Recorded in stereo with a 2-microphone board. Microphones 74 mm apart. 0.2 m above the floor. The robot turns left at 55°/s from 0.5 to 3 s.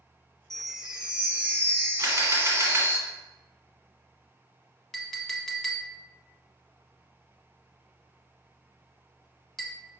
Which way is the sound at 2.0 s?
95° right.